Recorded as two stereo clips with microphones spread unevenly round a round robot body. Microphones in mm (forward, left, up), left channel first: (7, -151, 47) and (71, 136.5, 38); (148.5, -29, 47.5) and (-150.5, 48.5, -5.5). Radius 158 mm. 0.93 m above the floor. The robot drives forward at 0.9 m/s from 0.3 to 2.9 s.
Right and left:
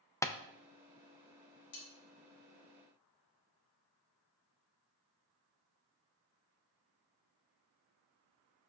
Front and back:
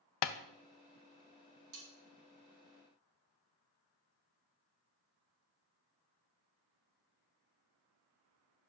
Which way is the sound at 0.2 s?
20° right.